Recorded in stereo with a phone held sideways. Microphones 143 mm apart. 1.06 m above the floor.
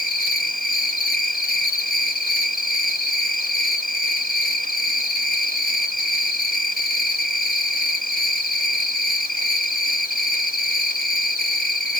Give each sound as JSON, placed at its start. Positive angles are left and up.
{"t": 0.0, "sound": "an insect", "side_deg": 80, "distance_m": 1.7}